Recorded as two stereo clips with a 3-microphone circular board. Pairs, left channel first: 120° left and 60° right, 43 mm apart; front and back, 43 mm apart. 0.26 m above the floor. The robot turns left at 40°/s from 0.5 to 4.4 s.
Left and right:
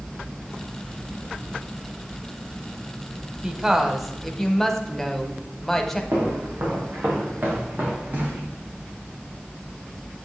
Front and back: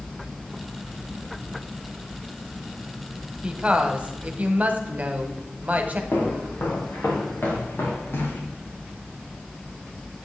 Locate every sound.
3.4 s a woman speaking: 120° right, 1.2 m; by 6.0 s 160° right, 1.2 m
6.1 s footsteps: 35° right, 3.5 m; by 8.4 s 15° right, 3 m